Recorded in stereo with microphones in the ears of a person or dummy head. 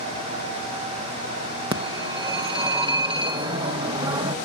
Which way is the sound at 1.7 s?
30° right (ahead or behind).